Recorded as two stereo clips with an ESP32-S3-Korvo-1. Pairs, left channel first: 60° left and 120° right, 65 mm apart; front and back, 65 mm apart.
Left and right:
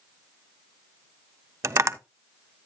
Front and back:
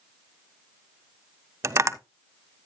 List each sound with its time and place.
1.6 s tapping: 150° right, 0.7 m